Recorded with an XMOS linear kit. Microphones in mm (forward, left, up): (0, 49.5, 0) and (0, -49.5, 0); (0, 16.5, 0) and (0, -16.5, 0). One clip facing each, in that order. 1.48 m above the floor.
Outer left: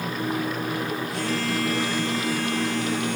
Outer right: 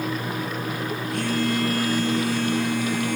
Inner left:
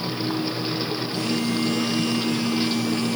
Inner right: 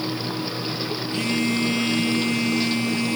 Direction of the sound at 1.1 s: 55° right (ahead or behind).